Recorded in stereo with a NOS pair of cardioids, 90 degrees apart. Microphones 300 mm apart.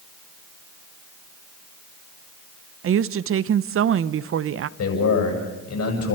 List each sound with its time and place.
2.8 s a woman speaking: 45° right, 0.7 m
4.8 s a man speaking: 55° left, 8 m